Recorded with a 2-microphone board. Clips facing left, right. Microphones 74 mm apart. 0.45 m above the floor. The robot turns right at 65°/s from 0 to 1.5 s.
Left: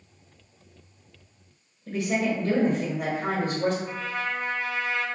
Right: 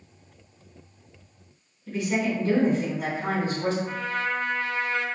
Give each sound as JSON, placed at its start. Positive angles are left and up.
{"t": 1.9, "sound": "a woman speaking", "side_deg": 45, "distance_m": 1.3}
{"t": 3.8, "sound": "a trumpet", "side_deg": -40, "distance_m": 0.7}